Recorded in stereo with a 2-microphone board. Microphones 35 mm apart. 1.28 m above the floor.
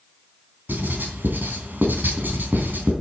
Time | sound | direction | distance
0.7 | writing | 75° right (ahead or behind) | 3.5 m